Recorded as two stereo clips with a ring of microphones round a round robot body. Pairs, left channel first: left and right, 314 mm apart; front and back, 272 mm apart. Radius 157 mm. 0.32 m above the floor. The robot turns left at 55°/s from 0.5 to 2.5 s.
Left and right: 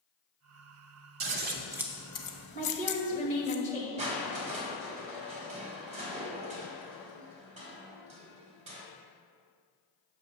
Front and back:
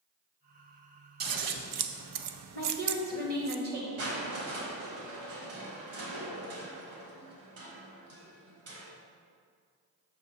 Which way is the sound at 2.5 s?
150° left.